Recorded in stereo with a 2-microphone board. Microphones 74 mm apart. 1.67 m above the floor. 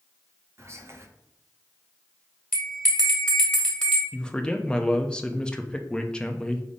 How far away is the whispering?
About 0.7 m.